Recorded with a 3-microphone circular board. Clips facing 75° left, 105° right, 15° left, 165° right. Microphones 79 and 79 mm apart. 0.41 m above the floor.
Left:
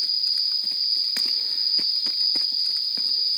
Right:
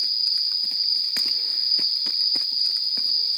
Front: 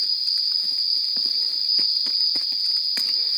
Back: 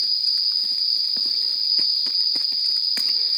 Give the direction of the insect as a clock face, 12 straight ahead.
6 o'clock.